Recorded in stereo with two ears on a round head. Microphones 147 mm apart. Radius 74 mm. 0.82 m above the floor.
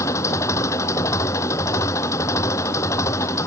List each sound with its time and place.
0.0 s an engine running: 20° left (ahead or behind)